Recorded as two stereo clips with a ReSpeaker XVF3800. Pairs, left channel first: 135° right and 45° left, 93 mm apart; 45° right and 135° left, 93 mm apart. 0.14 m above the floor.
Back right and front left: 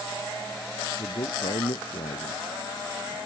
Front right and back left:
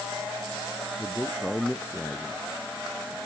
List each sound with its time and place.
1.0 s a man speaking: 135° right